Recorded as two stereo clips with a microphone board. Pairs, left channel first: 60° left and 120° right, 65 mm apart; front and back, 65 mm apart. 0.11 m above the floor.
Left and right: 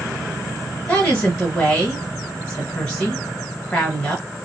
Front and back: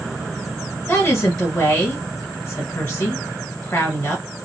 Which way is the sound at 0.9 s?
Straight ahead.